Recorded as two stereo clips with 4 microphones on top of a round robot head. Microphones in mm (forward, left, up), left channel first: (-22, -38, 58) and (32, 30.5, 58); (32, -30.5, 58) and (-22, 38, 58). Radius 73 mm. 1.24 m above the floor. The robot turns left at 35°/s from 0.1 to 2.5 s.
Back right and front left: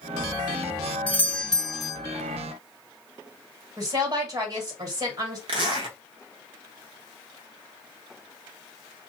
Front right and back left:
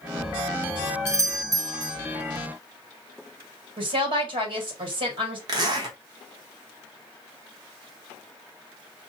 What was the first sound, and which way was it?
A doorbell, 170° left.